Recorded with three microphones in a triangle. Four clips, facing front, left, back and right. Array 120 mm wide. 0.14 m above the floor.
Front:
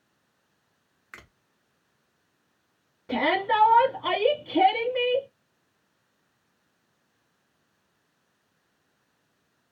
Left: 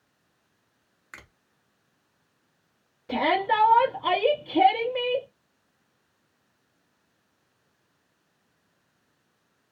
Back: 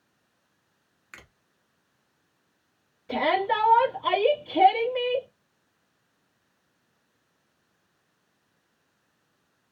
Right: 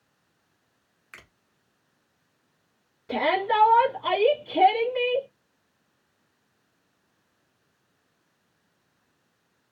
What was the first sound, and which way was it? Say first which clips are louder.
A finger snap: left 2 dB, front 1 dB; 50° left.